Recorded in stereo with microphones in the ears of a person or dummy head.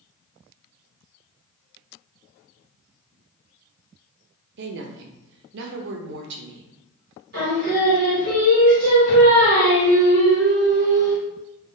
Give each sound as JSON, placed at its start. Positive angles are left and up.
{"t": 4.6, "sound": "a woman speaking", "side_deg": -60, "distance_m": 0.5}
{"t": 7.3, "sound": "singing", "side_deg": -55, "distance_m": 1.8}